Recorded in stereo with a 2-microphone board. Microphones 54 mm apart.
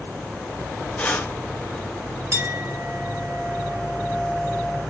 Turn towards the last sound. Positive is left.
turn(degrees=-50)  # may be behind; listen again after turning